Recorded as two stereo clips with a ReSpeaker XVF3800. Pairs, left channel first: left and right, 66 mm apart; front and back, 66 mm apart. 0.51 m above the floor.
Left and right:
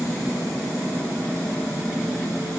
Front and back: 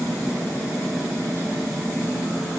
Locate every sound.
Only background noise.